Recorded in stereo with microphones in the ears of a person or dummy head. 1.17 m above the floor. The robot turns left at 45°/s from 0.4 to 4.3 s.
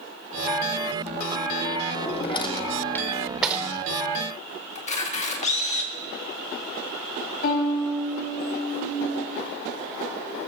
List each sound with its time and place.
1.9 s a drawer: 45° left (ahead or behind), 1.1 m; by 3.7 s 5° right (ahead or behind), 1.1 m
4.8 s a camera shutter: 45° left (ahead or behind), 2 m
7.4 s a violin: 45° left (ahead or behind), 5 m